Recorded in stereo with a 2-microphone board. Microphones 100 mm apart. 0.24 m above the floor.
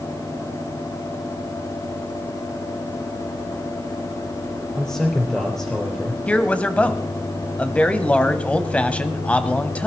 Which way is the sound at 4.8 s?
5° left (ahead or behind).